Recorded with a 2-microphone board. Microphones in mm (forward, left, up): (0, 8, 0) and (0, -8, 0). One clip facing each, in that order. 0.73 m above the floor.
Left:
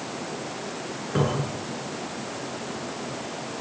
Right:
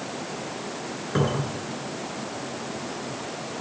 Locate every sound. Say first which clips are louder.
1.1 s a cupboard door: even; 15° right (ahead or behind), 8.5 m